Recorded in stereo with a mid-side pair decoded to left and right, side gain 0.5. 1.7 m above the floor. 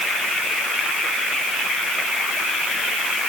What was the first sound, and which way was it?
Only background noise.